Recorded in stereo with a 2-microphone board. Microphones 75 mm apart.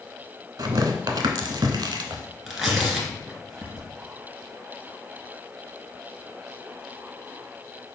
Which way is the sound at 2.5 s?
5° right (ahead or behind).